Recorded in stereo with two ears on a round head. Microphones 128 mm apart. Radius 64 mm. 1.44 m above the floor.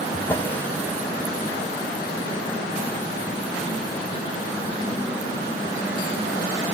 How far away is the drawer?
About 1.5 m.